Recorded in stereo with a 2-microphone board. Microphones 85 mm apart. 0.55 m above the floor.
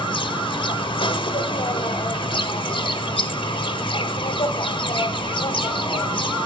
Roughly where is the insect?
Left.